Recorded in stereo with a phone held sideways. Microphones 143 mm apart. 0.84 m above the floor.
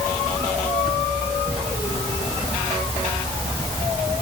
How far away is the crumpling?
No crumpling in this recording.